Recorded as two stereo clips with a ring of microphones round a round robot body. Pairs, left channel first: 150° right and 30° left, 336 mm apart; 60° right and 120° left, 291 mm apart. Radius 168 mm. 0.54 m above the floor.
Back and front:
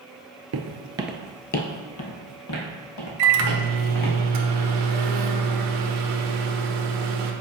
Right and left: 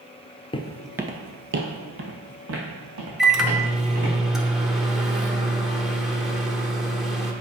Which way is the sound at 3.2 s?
30° left.